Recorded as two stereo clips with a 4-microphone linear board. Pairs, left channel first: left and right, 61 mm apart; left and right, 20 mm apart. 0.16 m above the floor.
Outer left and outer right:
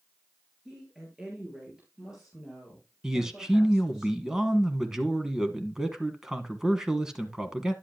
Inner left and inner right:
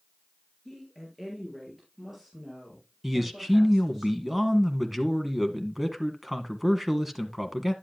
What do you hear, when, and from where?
0.7 s a woman speaking: 10° right (ahead or behind), 3 m
3.0 s a man speaking: 10° right (ahead or behind), 1.2 m